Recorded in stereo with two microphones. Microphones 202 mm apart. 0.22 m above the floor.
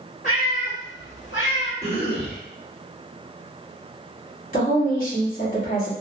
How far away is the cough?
About 2.0 m.